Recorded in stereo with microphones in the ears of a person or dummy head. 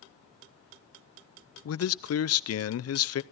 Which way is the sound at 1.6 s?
65° left (ahead or behind).